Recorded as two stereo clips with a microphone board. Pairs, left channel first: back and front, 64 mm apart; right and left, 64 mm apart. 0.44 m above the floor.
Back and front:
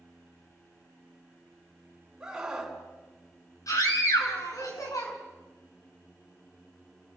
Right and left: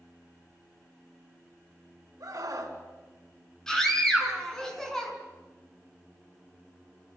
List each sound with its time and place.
2.2 s a scream: 80° left, 3.5 m
3.7 s a scream: 170° right, 5.5 m